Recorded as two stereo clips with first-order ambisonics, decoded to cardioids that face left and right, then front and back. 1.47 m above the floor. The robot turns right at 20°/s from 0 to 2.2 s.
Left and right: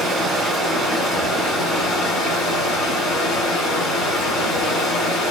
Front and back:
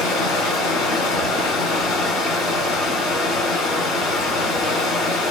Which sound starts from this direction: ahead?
Running water, at 0.0 s.